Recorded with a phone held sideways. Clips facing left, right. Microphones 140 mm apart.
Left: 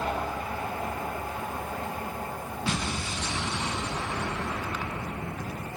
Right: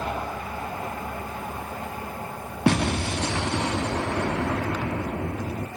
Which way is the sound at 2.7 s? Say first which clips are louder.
Right 11 dB; 70° right (ahead or behind).